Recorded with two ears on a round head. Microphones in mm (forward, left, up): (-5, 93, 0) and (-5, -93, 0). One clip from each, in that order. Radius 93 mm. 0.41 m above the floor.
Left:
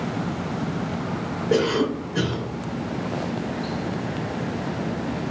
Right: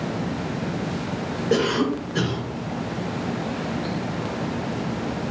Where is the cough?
40° right (ahead or behind), 1.2 m.